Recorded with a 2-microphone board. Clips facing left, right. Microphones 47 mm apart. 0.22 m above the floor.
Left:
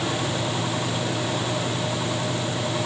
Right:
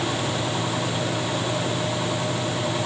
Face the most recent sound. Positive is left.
No sound to turn to.